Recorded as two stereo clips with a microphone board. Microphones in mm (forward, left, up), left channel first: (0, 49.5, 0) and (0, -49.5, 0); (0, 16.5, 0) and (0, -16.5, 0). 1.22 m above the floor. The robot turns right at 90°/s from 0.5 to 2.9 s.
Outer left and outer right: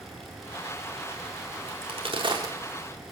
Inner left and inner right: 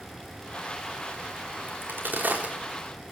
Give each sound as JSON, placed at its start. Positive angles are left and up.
{"t": 1.7, "sound": "a crack", "side_deg": -70, "distance_m": 4.0}